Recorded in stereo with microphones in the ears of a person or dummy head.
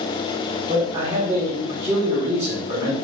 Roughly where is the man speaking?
Right.